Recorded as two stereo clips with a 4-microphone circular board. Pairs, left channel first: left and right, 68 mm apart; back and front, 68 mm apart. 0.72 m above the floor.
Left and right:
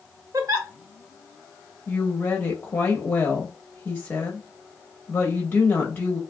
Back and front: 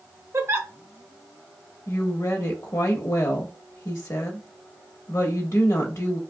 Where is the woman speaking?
155° left, 1.0 m.